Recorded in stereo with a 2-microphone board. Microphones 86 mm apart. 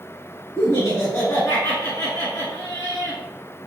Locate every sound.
0.6 s laughter: 30° left (ahead or behind), 1.5 m